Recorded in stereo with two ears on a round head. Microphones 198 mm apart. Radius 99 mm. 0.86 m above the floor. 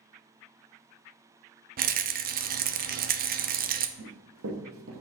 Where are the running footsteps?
70° right (ahead or behind), 2.5 m; by 5.0 s 60° right (ahead or behind), 1.6 m.